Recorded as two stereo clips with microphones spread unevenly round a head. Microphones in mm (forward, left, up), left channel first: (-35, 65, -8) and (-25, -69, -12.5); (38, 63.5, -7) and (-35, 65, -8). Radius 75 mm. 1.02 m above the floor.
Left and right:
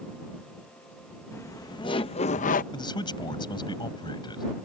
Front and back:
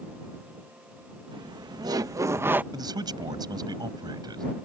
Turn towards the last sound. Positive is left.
turn(degrees=150)